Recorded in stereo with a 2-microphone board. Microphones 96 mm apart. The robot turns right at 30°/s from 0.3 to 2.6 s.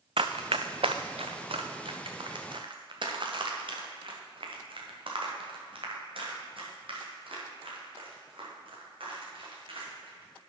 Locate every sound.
0.2 s running footsteps: 70° right (ahead or behind), 0.7 m